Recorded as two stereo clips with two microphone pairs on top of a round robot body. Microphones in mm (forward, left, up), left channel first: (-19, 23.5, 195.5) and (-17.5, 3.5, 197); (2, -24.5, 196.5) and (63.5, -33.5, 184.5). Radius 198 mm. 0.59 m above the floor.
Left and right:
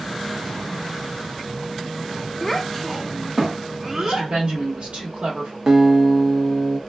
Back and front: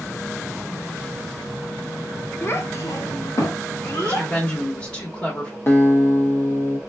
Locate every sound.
2.4 s a child speaking: 135° left, 0.7 m; by 4.3 s 160° right, 1.7 m
4.0 s a woman speaking: 120° right, 1.2 m
5.7 s a guitar: 140° right, 0.9 m